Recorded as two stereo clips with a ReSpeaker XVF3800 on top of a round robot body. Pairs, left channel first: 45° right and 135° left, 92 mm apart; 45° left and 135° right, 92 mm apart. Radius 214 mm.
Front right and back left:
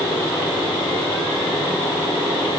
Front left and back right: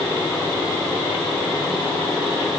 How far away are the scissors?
No scissors in this recording.